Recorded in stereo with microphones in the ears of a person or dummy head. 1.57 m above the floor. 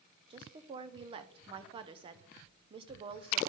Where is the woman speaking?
25° right (ahead or behind), 0.6 m.